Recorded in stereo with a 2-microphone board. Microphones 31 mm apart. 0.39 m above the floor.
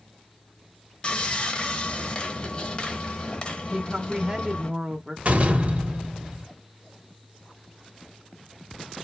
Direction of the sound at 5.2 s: 45° right (ahead or behind).